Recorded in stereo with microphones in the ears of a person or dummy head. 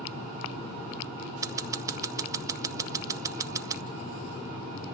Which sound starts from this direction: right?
Scissors, at 1.4 s.